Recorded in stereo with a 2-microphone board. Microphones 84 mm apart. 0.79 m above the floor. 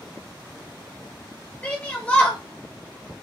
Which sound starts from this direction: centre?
A shout, at 1.6 s.